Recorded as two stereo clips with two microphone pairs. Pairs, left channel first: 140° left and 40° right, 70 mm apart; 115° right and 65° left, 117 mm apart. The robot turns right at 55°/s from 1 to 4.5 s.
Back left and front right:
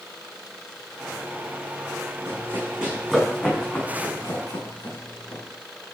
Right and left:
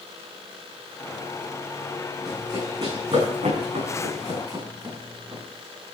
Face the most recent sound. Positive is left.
turn(degrees=130)